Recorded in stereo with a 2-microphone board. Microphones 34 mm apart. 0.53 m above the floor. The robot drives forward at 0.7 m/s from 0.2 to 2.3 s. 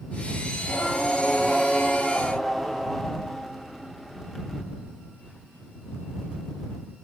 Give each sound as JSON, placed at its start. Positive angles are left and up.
{"t": 0.6, "sound": "singing", "side_deg": -5, "distance_m": 0.9}